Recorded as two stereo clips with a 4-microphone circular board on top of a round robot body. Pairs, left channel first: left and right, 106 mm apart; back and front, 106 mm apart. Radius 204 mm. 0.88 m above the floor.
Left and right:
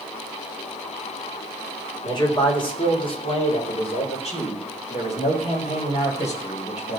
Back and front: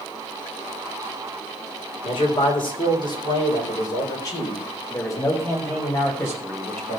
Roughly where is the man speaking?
Behind left.